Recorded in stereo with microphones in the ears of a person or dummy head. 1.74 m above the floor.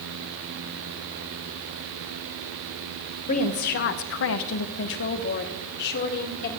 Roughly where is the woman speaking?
Left.